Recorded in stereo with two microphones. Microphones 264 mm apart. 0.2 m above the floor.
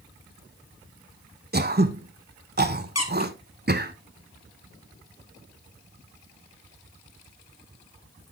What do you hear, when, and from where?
1.5 s throat clearing: 35° right (ahead or behind), 0.8 m
3.0 s a squeak: 70° left (ahead or behind), 1.8 m